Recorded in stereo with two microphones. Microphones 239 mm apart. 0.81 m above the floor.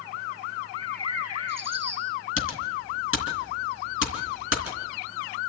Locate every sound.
0.7 s a bird: 80° right, 8 m
2.4 s typing on a keyboard: 55° left (ahead or behind), 3 m